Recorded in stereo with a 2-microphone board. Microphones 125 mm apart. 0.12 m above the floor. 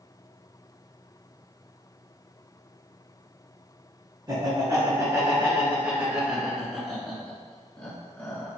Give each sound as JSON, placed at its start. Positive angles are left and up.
{"t": 4.3, "sound": "laughter", "side_deg": -30, "distance_m": 1.6}